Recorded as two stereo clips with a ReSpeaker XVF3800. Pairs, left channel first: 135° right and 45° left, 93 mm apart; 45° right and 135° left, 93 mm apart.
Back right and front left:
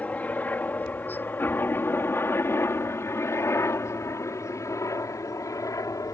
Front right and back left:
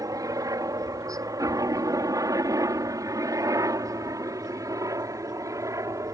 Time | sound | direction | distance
0.0 | a helicopter | 160° left | ?